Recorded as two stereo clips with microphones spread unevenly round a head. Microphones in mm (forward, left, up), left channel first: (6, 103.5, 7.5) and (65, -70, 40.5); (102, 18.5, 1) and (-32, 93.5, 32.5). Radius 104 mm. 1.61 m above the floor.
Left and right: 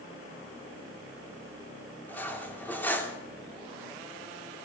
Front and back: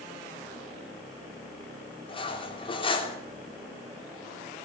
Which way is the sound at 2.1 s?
25° left.